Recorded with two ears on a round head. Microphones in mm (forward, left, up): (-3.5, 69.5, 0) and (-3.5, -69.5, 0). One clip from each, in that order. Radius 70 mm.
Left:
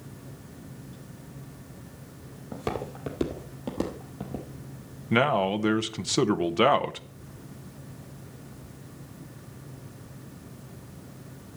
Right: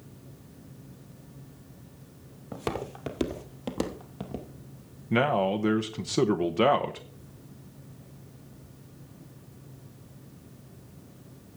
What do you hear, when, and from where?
2.5 s footsteps: 20° right (ahead or behind), 1.3 m; by 4.5 s 35° right (ahead or behind), 1.6 m
5.1 s a man speaking: 25° left (ahead or behind), 0.6 m